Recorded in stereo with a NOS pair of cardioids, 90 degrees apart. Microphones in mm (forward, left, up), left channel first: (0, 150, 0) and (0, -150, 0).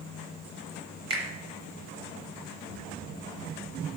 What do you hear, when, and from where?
1.1 s a finger snap: 20° right, 0.9 m